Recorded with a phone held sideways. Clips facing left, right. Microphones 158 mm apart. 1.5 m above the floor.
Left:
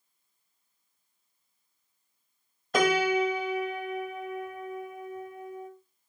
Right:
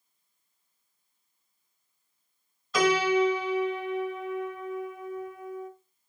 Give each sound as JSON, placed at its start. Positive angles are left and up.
{"t": 2.7, "sound": "a piano", "side_deg": 55, "distance_m": 1.3}